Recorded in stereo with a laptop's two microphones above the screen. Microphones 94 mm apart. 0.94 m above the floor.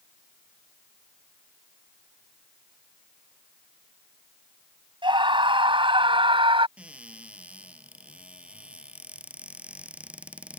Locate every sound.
5.0 s a scream: 60° right (ahead or behind); by 6.7 s 65° right (ahead or behind)
6.8 s a cupboard door: 15° right (ahead or behind)